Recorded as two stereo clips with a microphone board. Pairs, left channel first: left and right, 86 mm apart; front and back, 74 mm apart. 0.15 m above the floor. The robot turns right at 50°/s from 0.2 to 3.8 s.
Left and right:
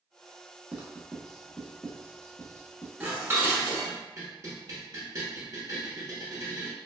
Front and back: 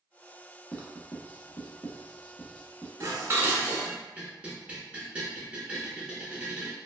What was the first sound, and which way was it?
Writing, 35° right.